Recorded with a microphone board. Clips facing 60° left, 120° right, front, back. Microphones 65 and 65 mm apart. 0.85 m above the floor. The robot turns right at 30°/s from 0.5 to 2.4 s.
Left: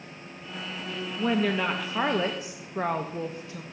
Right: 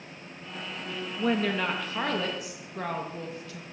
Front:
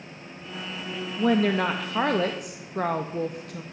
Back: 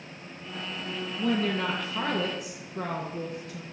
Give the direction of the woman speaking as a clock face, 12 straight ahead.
1 o'clock.